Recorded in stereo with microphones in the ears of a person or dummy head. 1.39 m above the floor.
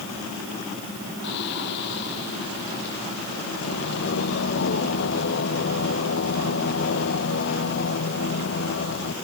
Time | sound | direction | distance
1.2 | singing | 60° left (ahead or behind) | ?